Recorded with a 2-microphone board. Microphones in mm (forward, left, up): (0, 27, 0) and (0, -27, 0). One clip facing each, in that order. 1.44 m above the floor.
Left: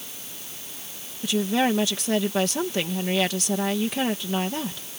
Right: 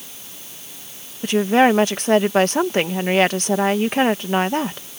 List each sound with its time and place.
1.2 s a woman speaking: 50° right (ahead or behind)